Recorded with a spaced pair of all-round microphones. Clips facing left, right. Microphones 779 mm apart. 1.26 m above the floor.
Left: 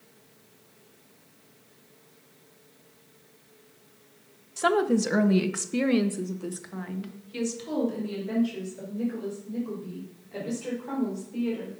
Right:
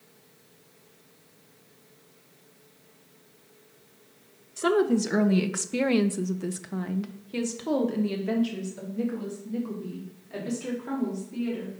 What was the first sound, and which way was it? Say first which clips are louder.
A woman speaking: right 1 dB; 30° left (ahead or behind).